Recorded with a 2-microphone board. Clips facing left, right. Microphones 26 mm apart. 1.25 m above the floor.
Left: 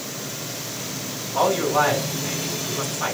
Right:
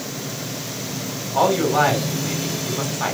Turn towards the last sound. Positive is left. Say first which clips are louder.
# right 2 dB
turn(degrees=-15)  # may be behind; listen again after turning